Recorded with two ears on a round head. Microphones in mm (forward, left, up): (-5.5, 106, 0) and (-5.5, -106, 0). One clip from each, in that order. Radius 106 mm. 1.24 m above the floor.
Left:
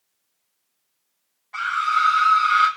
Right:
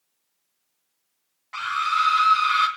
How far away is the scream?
About 6.5 m.